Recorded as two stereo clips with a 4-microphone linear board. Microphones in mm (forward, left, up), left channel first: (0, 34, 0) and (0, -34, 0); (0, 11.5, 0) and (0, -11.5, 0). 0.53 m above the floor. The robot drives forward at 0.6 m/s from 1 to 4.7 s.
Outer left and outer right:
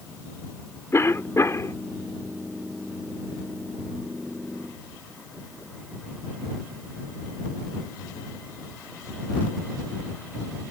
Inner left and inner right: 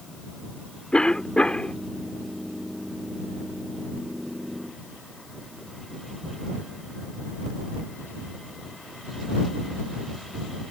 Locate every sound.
0.9 s a cough: 40° left (ahead or behind); by 1.8 s 45° left (ahead or behind)